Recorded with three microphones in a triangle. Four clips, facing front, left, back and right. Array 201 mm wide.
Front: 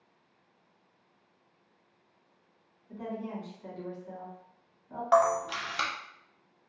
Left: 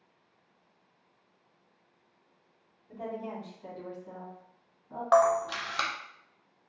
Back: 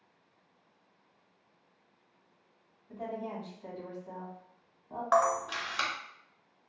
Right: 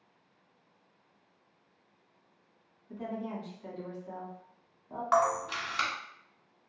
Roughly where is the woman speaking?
Left.